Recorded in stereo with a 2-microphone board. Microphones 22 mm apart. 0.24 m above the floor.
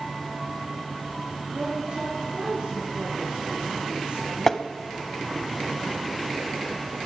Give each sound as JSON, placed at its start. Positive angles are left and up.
{"t": 1.5, "sound": "a woman speaking", "side_deg": -75, "distance_m": 3.5}
{"t": 4.5, "sound": "tapping", "side_deg": 15, "distance_m": 0.8}